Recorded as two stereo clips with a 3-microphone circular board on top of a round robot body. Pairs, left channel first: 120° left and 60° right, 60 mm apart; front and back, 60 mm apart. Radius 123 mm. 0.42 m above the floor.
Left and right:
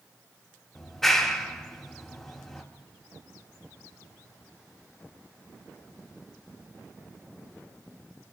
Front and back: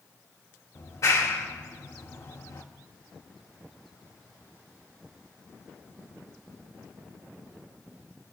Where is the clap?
35° left, 2.5 m.